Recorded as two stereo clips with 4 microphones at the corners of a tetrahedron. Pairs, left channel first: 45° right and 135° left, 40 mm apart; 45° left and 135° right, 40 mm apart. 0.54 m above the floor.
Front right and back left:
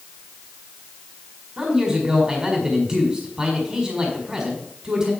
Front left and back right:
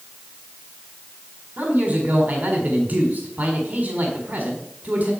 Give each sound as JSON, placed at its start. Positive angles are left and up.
{"t": 1.6, "sound": "a man speaking", "azimuth_deg": -165, "distance_m": 1.7}